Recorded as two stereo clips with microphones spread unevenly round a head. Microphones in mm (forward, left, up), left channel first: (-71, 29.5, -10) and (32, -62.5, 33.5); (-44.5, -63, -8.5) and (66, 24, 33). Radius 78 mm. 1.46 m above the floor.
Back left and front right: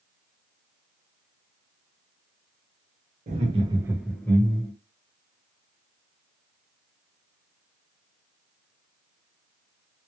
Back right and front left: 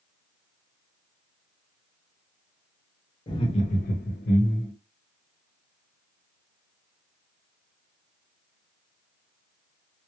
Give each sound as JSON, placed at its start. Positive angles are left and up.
{"t": 3.3, "sound": "laughter", "azimuth_deg": -80, "distance_m": 1.0}